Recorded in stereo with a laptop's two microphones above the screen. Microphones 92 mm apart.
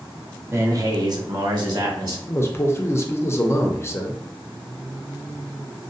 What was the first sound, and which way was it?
A man speaking, 25° right (ahead or behind).